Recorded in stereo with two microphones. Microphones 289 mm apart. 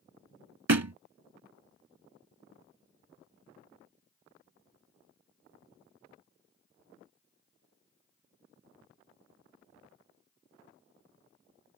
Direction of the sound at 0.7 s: 65° right (ahead or behind).